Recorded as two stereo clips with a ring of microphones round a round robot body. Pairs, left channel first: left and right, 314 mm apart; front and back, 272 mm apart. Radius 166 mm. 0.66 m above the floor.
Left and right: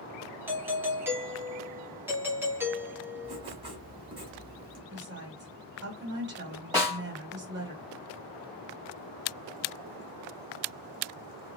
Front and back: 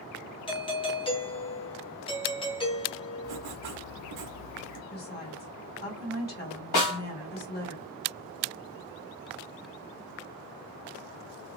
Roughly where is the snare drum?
Ahead.